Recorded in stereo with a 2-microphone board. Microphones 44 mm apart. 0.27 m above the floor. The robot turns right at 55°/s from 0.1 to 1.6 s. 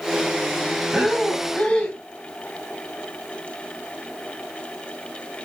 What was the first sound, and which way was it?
Breathing, 15° right.